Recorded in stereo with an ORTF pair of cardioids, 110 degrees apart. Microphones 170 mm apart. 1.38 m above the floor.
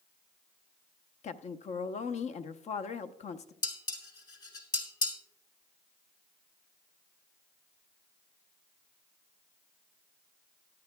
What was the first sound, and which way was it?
A woman speaking, 45° left.